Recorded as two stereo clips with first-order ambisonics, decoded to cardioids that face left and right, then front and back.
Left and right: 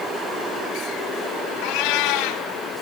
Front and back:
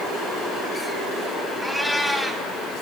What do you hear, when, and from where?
1.6 s a cat meowing: 85° left, 3 m